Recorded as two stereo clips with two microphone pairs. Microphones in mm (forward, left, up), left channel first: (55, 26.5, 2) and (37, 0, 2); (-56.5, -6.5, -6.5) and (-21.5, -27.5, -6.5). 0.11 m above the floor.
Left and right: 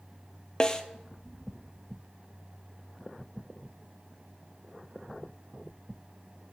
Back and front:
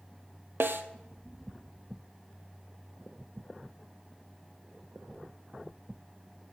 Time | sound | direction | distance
0.6 | a snare drum | 10° right | 0.7 m